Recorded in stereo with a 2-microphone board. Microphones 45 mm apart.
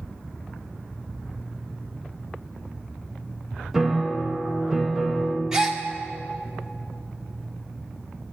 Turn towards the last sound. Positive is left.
turn(degrees=-10)  # may be behind; listen again after turning